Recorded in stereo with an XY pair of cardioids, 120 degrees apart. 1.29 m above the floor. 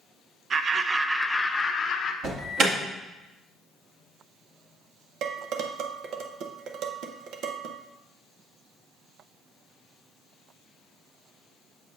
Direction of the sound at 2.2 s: 55° right.